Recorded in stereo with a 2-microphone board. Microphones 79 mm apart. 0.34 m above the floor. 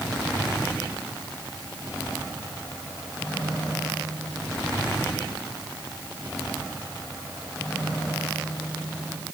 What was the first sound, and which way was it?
Only background noise.